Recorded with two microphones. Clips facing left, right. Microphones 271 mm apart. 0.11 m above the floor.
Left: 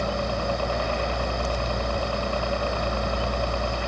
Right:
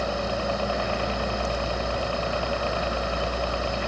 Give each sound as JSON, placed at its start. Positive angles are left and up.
{"t": 0.0, "sound": "a helicopter", "side_deg": 45}